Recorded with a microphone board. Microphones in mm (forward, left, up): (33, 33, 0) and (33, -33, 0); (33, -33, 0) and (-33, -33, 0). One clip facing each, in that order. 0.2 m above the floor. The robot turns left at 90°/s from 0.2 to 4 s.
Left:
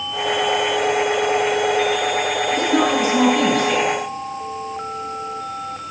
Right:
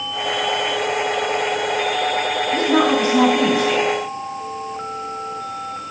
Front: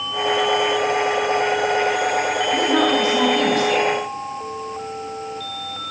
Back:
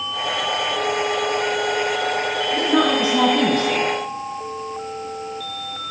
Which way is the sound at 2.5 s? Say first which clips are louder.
Right 2 dB, even; 70° right.